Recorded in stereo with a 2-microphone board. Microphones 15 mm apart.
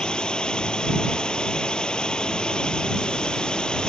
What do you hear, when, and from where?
0.0 s a drone: 65° left (ahead or behind)